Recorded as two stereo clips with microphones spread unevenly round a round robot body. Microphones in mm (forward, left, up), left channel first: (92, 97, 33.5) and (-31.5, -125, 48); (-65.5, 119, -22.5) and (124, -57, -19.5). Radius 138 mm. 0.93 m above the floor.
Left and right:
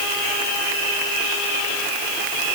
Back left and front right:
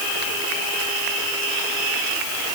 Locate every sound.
Only background noise.